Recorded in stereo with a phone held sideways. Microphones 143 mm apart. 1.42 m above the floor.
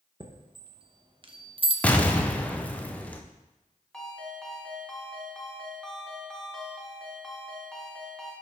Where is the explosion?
10° left (ahead or behind), 0.6 m.